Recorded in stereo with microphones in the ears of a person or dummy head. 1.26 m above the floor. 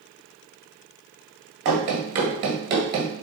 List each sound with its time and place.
1.6 s running footsteps: 25° right (ahead or behind), 1.3 m